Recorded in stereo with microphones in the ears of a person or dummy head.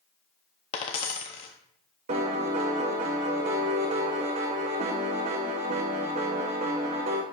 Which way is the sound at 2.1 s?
30° right (ahead or behind).